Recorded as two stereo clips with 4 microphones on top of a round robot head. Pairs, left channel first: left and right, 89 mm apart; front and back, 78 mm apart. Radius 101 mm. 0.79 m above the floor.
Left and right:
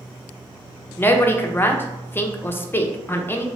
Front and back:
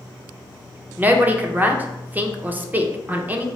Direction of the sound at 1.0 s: 130° left.